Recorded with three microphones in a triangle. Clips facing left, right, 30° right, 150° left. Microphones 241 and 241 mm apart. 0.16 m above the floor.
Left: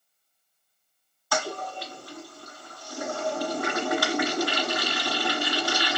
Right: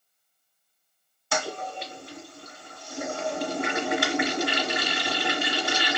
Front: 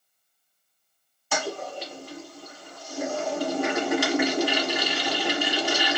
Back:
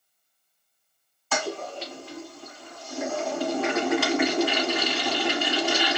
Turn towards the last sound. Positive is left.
turn(degrees=-85)